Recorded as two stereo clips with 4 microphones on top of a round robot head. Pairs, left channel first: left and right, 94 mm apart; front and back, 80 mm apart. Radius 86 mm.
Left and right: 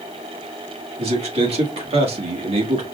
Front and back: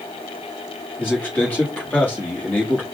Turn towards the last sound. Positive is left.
turn(degrees=-75)